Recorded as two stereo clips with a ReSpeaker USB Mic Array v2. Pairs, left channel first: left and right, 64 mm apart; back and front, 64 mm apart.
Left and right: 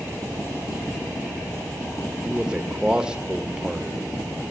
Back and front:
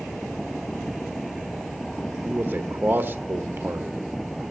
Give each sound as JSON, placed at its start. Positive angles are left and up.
{"t": 2.2, "sound": "a man speaking", "azimuth_deg": -25, "distance_m": 0.9}